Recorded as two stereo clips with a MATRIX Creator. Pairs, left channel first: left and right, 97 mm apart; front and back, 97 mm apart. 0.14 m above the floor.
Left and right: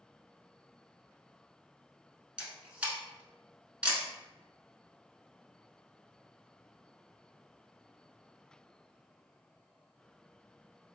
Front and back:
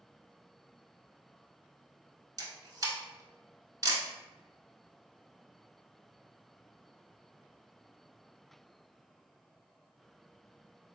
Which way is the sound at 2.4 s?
160° right.